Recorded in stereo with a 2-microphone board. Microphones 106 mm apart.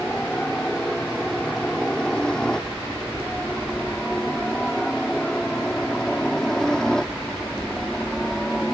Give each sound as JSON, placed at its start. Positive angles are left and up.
{"t": 0.0, "sound": "a helicopter", "side_deg": 5}